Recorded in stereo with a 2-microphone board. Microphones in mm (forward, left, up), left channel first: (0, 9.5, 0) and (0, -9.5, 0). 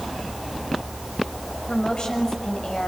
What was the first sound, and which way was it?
A woman speaking, 55° left (ahead or behind).